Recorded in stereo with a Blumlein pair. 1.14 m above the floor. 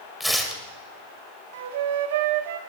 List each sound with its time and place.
0.2 s tearing paper: straight ahead, 2.5 m
1.5 s a flute: 55° right, 1.3 m